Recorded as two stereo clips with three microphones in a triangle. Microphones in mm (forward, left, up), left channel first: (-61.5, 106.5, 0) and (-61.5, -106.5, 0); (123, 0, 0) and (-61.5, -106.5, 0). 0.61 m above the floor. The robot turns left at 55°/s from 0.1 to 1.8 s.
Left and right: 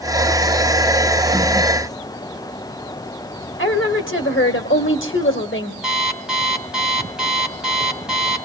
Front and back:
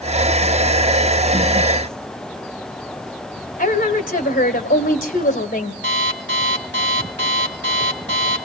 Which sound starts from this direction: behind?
An alarm clock, at 5.8 s.